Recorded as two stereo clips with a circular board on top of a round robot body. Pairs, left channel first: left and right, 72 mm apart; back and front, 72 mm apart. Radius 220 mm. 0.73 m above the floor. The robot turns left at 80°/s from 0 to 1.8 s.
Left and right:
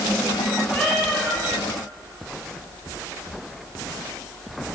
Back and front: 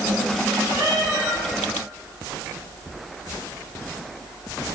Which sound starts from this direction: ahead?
A cat meowing, at 0.7 s.